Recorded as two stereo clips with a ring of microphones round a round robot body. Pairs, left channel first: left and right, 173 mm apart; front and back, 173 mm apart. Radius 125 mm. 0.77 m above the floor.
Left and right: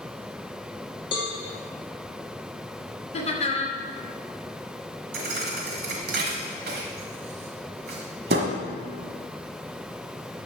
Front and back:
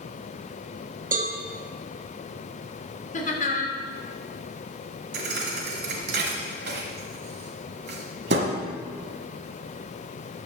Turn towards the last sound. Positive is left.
turn(degrees=-135)